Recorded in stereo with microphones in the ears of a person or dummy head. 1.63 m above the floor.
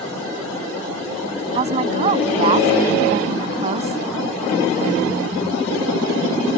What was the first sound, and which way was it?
A woman speaking, 30° right (ahead or behind).